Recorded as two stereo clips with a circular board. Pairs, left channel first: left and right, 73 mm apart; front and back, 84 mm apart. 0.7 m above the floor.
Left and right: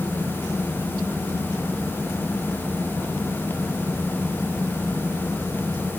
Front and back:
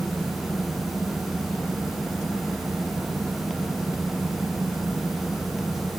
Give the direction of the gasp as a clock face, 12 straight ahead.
No gasp in this recording.